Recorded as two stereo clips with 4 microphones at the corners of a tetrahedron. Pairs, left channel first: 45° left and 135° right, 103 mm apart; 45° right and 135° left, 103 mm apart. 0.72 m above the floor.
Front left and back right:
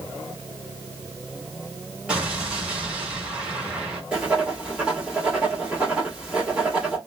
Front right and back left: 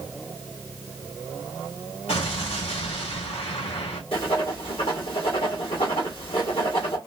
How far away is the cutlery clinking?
No cutlery clinking in this recording.